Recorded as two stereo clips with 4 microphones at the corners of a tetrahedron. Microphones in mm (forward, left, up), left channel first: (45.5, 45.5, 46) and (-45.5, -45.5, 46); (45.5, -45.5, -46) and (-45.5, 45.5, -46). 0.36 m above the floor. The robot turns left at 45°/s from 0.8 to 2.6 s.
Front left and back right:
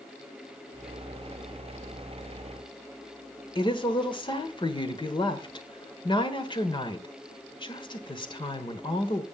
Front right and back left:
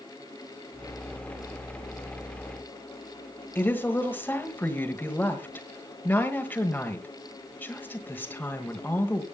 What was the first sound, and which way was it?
A woman speaking, 20° left.